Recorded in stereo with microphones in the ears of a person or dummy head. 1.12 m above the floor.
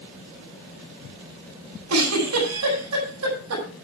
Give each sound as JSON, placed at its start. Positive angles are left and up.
{"t": 1.9, "sound": "a giggle", "side_deg": -80, "distance_m": 8.0}